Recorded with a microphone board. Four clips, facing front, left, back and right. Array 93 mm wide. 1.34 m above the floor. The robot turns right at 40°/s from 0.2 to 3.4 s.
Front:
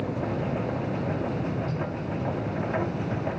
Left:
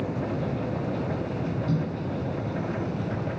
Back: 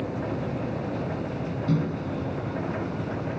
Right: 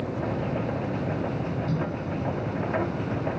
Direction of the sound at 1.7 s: Straight behind.